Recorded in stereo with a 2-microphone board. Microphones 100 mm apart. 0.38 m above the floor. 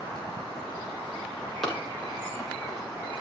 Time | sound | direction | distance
1.6 | running footsteps | 5° left (ahead or behind) | 8 m